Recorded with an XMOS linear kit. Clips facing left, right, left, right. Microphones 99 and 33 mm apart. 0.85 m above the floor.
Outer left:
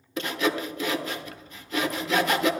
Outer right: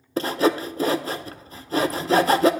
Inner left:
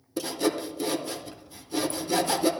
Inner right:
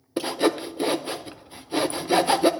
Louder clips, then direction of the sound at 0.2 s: Outer right 6 dB, inner right 4 dB; 35° right (ahead or behind).